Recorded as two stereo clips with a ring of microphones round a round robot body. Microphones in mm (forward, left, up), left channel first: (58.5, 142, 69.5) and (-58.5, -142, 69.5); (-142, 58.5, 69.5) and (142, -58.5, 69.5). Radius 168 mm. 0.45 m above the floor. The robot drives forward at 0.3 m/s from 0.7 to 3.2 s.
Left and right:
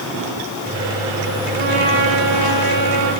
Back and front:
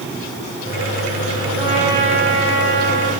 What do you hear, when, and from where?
1.6 s a trumpet: 125° right, 10 m